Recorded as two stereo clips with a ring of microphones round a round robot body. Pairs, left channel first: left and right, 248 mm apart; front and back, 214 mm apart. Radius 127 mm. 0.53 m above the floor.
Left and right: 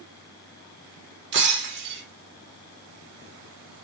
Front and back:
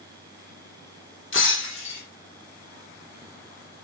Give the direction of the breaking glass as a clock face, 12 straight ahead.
1 o'clock.